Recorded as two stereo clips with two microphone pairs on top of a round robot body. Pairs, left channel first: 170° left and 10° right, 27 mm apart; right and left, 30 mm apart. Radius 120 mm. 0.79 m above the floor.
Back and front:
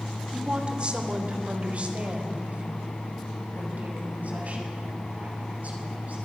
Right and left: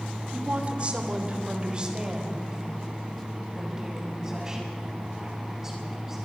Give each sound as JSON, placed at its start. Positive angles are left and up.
{"t": 0.3, "sound": "a woman speaking", "azimuth_deg": 50, "distance_m": 2.5}